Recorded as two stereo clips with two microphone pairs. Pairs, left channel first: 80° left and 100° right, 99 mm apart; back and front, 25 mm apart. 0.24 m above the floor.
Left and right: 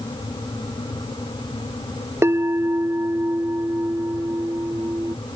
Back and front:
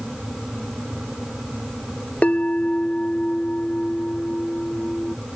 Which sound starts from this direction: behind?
A bell, at 2.2 s.